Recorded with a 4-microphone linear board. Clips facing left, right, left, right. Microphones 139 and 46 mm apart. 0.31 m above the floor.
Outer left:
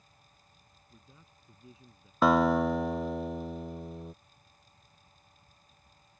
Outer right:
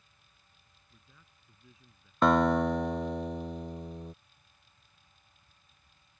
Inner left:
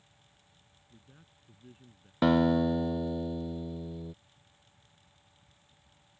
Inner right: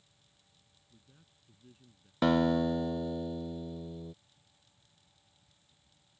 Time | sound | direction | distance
0.9 | a man speaking | 30° left (ahead or behind) | ?
2.2 | a guitar | 5° left (ahead or behind) | ?